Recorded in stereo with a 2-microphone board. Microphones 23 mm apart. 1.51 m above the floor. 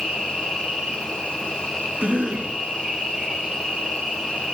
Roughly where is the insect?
Right.